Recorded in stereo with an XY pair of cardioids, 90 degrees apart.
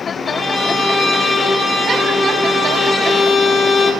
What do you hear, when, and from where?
0.3 s a violin: 40° left, 2 m